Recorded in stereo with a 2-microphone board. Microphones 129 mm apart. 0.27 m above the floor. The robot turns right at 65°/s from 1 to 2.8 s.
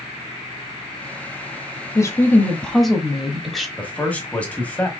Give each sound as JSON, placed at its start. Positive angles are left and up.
{"t": 1.9, "sound": "a woman speaking", "side_deg": 25, "distance_m": 1.1}
{"t": 3.8, "sound": "a man speaking", "side_deg": 10, "distance_m": 1.3}